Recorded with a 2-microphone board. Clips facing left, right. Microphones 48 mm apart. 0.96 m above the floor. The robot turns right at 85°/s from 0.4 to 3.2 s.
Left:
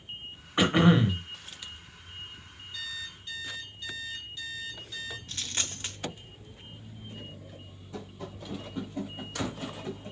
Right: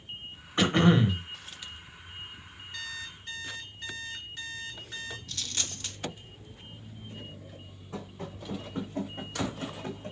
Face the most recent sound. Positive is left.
turn(degrees=-55)  # may be behind; listen again after turning